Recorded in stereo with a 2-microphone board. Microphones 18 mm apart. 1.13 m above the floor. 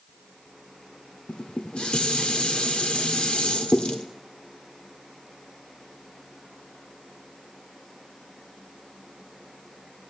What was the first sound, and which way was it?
Dishes clattering, 65° left (ahead or behind).